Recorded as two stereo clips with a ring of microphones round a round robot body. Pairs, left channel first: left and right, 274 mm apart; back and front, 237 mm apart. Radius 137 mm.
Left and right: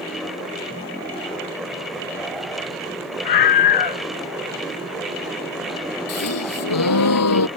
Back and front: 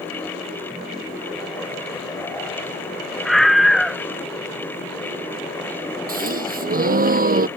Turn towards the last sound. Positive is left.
turn(degrees=55)